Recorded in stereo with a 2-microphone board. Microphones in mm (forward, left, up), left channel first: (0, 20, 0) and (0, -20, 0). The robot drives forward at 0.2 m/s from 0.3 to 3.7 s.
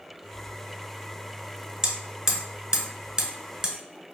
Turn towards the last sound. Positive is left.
turn(degrees=-20)  # may be behind; listen again after turning